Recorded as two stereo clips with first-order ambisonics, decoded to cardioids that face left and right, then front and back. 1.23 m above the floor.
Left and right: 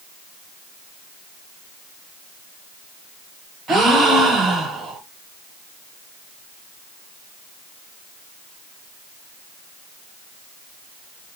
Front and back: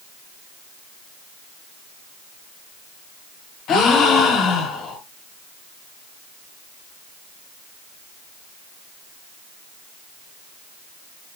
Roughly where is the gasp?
Ahead right.